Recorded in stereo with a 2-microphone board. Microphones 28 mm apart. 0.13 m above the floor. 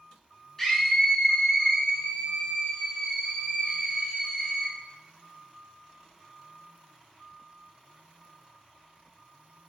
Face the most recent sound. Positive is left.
turn(degrees=-25)  # may be behind; listen again after turning